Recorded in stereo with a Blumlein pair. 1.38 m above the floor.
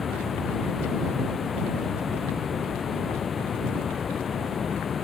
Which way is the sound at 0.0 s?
20° left.